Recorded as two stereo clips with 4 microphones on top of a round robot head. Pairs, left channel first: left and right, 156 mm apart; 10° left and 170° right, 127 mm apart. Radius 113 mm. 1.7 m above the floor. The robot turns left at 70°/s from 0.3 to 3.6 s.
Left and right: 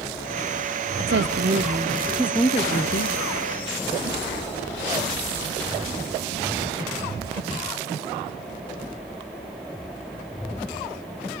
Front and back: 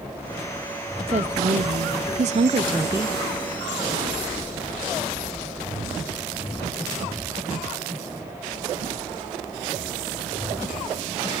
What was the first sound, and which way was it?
A woman speaking, 105° right.